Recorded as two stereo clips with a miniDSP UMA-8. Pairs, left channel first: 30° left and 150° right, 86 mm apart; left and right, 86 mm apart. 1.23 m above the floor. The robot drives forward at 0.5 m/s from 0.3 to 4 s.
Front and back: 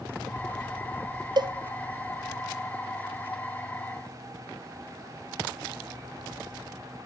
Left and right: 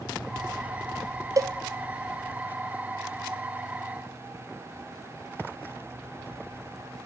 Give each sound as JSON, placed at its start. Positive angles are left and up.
{"t": 1.4, "sound": "a cowbell", "azimuth_deg": -130, "distance_m": 0.5}